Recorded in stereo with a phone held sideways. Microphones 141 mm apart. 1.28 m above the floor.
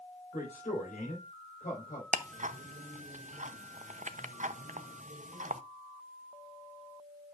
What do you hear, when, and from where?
0.3 s a man speaking: 90° left, 4.5 m
2.1 s ticking: 60° right (ahead or behind), 0.7 m